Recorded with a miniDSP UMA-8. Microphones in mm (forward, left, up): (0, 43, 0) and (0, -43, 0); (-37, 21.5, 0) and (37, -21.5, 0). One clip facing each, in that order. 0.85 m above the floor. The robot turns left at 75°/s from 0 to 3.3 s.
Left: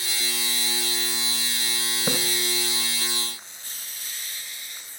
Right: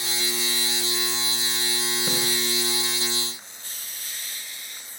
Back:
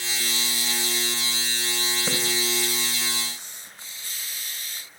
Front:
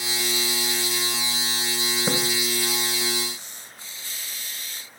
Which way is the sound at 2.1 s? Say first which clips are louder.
Left 5 dB, front 5 dB; 45° left.